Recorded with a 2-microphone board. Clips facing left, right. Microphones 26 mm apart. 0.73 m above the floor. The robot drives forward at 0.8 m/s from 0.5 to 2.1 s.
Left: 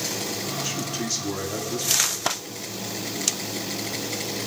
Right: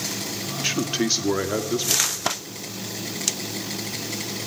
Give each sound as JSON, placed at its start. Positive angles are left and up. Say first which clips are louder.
{"t": 0.6, "sound": "a man speaking", "louder": "right 5 dB", "side_deg": -50, "distance_m": 1.7}